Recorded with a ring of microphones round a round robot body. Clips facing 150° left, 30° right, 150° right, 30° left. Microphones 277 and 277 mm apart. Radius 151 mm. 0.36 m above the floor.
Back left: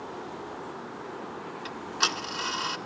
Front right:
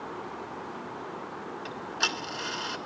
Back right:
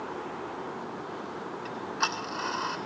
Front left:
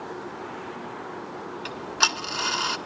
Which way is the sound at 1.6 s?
70° left.